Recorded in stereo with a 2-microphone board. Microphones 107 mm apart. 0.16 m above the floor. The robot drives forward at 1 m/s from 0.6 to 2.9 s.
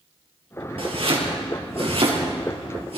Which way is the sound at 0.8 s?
60° right (ahead or behind).